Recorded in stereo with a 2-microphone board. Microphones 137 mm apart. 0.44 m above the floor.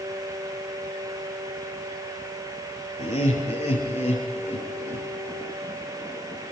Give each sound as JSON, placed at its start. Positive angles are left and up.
{"t": 3.0, "sound": "laughter", "side_deg": 60, "distance_m": 7.0}